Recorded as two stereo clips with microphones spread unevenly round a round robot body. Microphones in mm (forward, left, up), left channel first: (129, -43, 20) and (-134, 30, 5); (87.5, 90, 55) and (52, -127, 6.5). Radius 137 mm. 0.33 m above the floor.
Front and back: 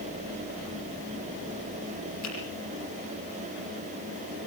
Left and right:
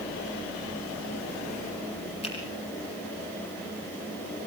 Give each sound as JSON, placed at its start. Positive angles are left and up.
{"t": 2.2, "sound": "a finger snap", "azimuth_deg": 15, "distance_m": 7.0}